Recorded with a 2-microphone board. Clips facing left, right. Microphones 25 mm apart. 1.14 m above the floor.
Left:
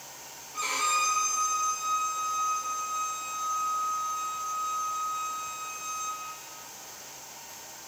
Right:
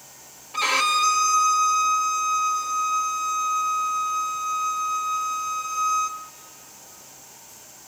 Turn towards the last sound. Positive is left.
turn(degrees=-70)  # may be behind; listen again after turning